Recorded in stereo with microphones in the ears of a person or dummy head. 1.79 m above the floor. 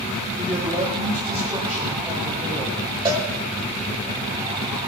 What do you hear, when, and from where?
0.4 s a woman speaking: 20° right (ahead or behind), 2.5 m; by 2.8 s 5° left (ahead or behind), 6 m
3.0 s a cowbell: 25° right (ahead or behind), 2.5 m